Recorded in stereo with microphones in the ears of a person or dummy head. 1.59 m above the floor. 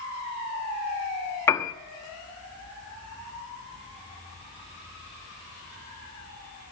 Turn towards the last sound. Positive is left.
turn(degrees=15)  # may be behind; listen again after turning